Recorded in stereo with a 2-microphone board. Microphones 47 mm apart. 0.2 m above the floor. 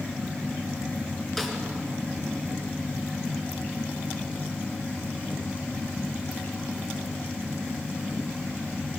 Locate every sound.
1.4 s a snare drum: 5° left (ahead or behind), 3.5 m